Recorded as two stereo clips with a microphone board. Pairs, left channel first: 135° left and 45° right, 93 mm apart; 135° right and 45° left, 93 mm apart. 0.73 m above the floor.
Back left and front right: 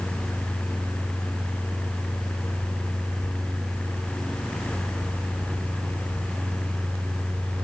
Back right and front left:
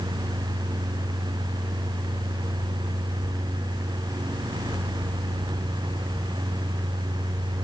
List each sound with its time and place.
Only background noise.